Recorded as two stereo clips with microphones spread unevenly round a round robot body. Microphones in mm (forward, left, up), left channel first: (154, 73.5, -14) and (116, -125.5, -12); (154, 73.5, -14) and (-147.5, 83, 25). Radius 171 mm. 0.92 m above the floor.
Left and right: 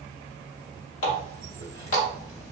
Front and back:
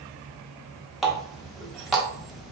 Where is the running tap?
90° left, 0.8 m.